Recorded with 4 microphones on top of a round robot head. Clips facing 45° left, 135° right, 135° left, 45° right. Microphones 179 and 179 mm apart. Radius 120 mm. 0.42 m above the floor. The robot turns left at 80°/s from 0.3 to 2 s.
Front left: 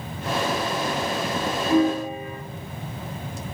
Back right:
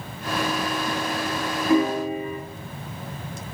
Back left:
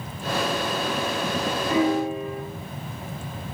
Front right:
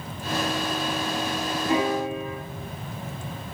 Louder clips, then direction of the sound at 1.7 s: Even, back left 2 dB; 110° right.